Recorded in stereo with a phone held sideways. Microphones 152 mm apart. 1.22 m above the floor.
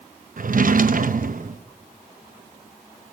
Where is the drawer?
65° right (ahead or behind), 0.7 m.